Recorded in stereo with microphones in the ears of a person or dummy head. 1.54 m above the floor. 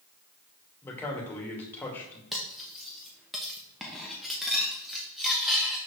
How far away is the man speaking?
About 2 m.